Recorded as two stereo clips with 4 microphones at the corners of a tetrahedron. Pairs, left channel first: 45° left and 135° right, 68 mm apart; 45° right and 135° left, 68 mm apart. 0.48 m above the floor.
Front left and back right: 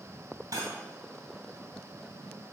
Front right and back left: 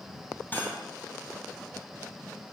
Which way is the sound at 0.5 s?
105° right.